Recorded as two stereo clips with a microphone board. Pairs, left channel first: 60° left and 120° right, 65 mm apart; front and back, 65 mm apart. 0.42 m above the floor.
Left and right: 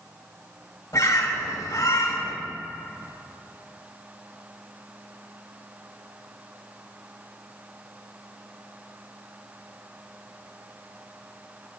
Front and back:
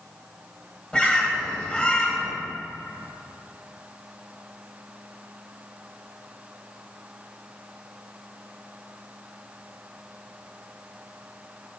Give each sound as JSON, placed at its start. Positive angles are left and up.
{"t": 0.9, "sound": "a bird", "azimuth_deg": 75, "distance_m": 1.6}